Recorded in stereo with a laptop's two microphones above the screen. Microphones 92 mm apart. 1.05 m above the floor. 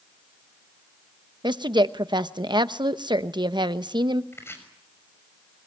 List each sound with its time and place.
1.4 s a woman speaking: 55° right (ahead or behind), 0.9 m
4.3 s chopping: 25° left (ahead or behind), 6 m